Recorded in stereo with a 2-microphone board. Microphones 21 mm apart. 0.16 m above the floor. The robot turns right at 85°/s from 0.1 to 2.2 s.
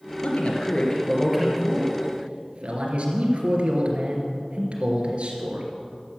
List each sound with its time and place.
0.2 s a man speaking: 90° left, 2.5 m; by 5.7 s 105° right, 2.5 m